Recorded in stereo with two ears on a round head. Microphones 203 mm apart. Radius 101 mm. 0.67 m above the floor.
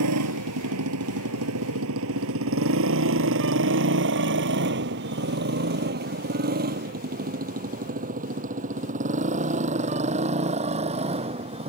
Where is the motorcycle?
85° right; by 11.7 s 25° right (ahead or behind).